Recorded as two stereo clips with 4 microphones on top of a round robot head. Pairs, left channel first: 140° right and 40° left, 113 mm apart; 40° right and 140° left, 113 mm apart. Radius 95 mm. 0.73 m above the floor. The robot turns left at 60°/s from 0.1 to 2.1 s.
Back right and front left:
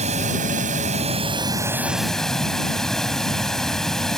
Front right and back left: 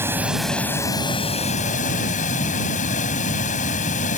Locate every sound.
0.0 s running water: 70° left; by 4.2 s 50° right